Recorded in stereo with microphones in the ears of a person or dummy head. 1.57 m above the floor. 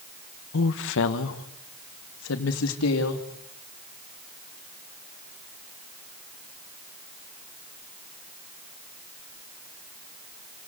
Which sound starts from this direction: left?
A woman speaking, at 0.5 s.